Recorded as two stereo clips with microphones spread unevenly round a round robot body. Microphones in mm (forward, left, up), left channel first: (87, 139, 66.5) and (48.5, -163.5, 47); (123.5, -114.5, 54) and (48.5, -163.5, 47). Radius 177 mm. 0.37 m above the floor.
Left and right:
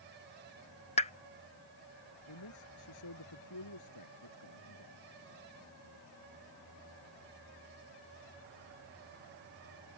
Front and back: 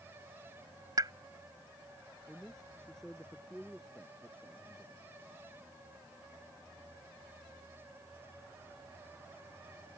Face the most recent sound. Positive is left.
turn(degrees=120)